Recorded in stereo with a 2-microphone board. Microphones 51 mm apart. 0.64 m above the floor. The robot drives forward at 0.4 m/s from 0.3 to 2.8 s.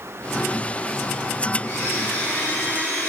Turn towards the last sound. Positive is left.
turn(degrees=55)  # may be behind; listen again after turning